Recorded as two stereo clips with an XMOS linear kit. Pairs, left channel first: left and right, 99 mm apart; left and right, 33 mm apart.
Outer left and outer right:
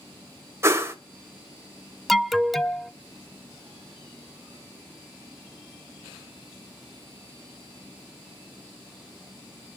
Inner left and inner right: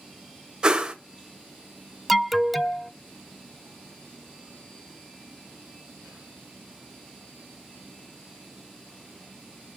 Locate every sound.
0.6 s a whoosh: 30° right (ahead or behind), 1.2 m
2.1 s an alarm: centre (ahead or behind), 0.5 m